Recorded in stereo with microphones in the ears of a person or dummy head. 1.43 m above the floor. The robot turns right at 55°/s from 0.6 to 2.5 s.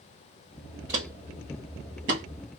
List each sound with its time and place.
0.9 s footsteps: 10° right (ahead or behind), 1.5 m; by 2.2 s 45° right (ahead or behind), 2.0 m